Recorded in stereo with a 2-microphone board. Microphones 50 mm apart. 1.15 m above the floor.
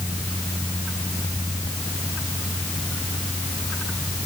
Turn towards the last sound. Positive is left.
No sound to turn to.